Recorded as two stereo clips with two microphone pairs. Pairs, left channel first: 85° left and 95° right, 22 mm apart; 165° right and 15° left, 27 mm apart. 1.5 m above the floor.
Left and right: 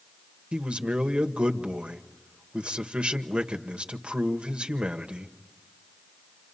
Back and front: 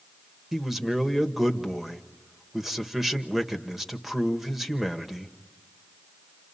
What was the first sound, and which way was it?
A man speaking, 70° right.